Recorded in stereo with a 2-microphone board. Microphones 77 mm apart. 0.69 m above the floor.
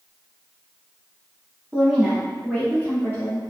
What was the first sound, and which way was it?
A woman speaking, 15° right (ahead or behind).